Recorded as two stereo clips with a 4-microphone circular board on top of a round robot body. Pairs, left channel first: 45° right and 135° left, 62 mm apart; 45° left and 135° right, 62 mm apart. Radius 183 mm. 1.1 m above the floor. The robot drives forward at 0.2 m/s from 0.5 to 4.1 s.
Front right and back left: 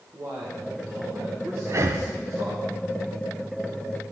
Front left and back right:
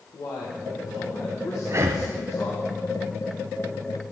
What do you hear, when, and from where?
0.1 s a man speaking: 80° left, 1.4 m; by 2.7 s 95° left, 1.3 m
1.7 s breathing: straight behind, 0.6 m